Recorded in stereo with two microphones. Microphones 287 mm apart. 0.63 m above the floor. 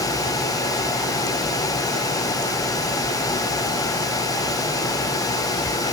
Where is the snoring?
I don't hear snoring.